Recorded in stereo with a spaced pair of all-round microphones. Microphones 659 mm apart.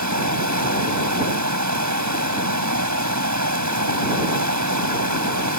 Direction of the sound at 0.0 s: 25° right (ahead or behind).